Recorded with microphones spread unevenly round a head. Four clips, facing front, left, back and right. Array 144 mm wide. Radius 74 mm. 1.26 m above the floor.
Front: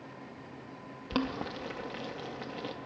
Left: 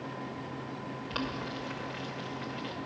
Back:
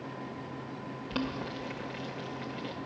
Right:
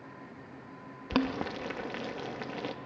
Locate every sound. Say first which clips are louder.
1.1 s boiling: right 7 dB, front 2 dB; 70° right, 0.7 m